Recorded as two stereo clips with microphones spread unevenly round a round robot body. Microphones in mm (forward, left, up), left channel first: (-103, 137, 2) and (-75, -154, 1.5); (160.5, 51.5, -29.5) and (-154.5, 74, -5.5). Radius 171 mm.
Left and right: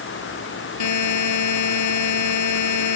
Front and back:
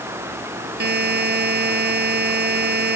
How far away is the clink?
No clink in this recording.